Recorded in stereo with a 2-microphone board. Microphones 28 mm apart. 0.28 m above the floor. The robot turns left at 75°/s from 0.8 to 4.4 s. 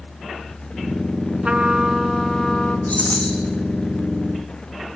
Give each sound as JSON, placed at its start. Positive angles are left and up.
{"t": 1.4, "sound": "a trumpet", "azimuth_deg": -125, "distance_m": 2.5}
{"t": 2.9, "sound": "a rattle", "azimuth_deg": 75, "distance_m": 4.5}